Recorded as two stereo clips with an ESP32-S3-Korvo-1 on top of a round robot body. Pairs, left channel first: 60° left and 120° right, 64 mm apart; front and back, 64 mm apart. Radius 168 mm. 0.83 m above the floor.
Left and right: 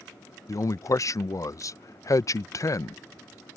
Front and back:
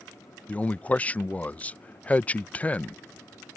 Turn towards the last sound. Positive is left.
turn(degrees=65)